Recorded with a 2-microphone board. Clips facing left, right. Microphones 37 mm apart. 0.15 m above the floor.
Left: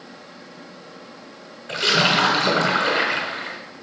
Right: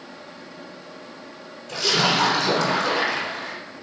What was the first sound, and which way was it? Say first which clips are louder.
A splash: left 3 dB; 35° left (ahead or behind).